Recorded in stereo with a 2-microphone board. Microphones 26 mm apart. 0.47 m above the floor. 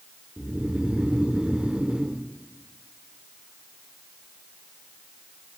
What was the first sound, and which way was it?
Snoring, 50° right (ahead or behind).